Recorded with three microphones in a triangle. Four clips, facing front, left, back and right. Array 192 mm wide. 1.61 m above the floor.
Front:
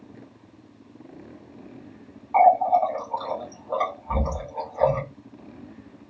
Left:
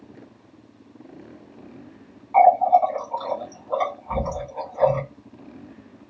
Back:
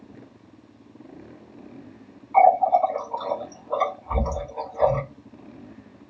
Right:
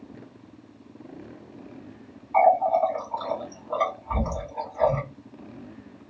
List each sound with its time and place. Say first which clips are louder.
2.3 s a running tap: left 4 dB, back 1 dB; 25° left, 1.6 m